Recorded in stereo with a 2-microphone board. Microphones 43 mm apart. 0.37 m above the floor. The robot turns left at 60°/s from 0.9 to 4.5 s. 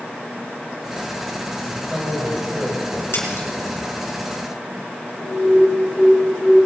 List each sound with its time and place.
1.6 s a man speaking: 10° left (ahead or behind), 2.5 m; by 3.9 s 45° right (ahead or behind), 2.5 m
3.1 s a splash: 75° left (ahead or behind), 3.5 m; by 3.5 s 60° left (ahead or behind), 3.5 m
5.2 s an alarm: 15° left (ahead or behind), 2.5 m